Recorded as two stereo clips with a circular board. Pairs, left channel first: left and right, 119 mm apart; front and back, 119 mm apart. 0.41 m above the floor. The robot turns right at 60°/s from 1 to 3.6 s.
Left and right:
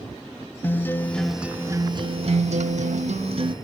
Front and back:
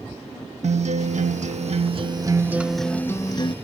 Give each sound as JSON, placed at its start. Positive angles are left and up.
{"t": 0.6, "sound": "a guitar", "azimuth_deg": 165, "distance_m": 0.5}